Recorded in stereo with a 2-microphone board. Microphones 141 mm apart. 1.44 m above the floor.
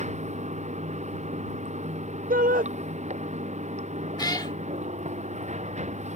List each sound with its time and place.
0.0 s running water: 55° right (ahead or behind)
2.3 s a shout: 75° right (ahead or behind)
4.2 s a cat meowing: 30° left (ahead or behind)